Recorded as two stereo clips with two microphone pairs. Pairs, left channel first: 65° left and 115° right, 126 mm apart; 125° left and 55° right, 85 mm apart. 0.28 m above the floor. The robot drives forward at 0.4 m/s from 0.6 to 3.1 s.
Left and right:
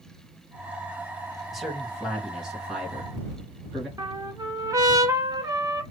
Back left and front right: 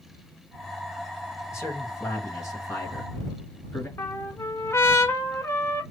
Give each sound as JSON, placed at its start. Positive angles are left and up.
{"t": 1.5, "sound": "a man speaking", "azimuth_deg": 150, "distance_m": 1.7}
{"t": 4.0, "sound": "a trumpet", "azimuth_deg": 180, "distance_m": 1.0}